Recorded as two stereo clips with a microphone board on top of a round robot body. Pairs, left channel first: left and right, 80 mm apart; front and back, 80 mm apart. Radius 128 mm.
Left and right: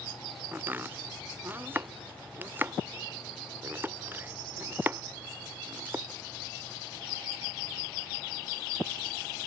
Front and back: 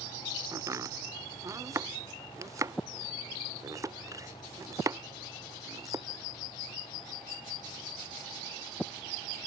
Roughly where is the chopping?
Behind right.